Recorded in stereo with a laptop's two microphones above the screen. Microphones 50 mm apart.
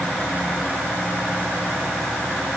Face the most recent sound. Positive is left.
No sound to turn to.